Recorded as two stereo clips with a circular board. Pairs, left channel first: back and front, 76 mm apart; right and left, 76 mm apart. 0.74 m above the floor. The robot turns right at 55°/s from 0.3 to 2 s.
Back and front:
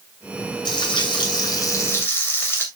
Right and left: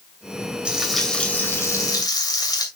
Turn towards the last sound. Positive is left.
turn(degrees=-120)